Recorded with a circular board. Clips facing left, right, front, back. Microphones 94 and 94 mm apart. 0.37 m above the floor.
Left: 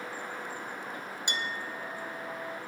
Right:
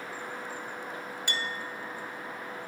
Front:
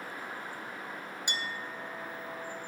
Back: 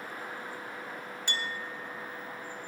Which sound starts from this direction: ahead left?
A clink, at 1.3 s.